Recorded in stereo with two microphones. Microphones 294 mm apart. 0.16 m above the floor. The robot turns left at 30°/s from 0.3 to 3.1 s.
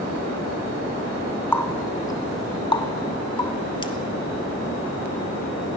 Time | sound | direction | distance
1.5 | a running tap | 5° left (ahead or behind) | 0.7 m